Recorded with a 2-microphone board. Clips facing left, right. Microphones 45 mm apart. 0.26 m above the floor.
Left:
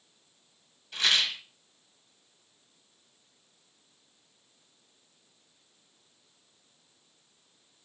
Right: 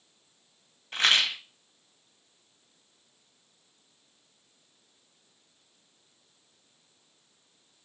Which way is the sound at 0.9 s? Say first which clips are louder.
Right 3 dB; 40° right (ahead or behind).